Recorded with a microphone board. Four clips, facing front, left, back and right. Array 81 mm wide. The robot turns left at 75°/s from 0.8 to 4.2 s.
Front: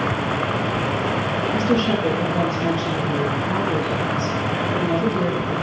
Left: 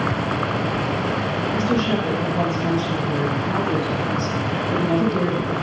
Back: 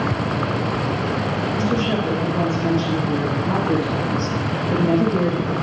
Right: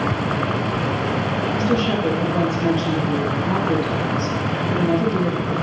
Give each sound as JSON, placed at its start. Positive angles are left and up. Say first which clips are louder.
{"t": 1.5, "sound": "a woman speaking", "louder": "even, front 2 dB", "azimuth_deg": 15, "distance_m": 4.0}